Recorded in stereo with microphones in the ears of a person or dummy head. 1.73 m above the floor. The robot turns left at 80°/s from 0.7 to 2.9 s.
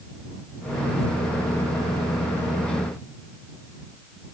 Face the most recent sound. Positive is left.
No sound to turn to.